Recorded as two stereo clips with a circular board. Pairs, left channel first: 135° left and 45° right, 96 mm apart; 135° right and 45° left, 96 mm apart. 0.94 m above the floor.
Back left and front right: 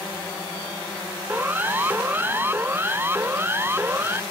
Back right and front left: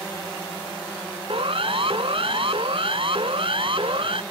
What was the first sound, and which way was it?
A siren, 25° left.